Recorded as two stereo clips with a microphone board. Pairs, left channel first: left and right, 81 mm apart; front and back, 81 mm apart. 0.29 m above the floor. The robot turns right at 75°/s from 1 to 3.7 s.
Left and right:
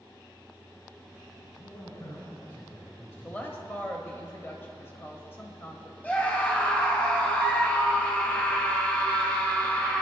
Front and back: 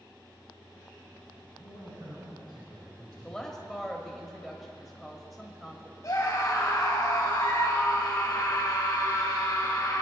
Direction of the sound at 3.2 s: 55° left.